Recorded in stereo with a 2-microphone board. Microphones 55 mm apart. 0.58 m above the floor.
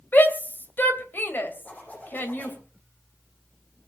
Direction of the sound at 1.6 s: 25° left (ahead or behind).